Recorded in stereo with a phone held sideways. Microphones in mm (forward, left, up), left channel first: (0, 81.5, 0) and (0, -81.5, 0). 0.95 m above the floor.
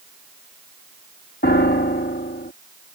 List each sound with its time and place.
1.4 s a piano: 75° left (ahead or behind)